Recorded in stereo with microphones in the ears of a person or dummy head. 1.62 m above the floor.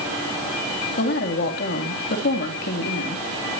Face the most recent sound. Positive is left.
turn(degrees=60)  # may be behind; listen again after turning